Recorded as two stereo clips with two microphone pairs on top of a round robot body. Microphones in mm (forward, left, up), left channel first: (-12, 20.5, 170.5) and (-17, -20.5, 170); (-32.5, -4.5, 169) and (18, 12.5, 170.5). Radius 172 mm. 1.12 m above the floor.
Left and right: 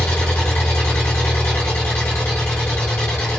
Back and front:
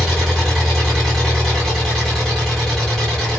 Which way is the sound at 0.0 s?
110° left.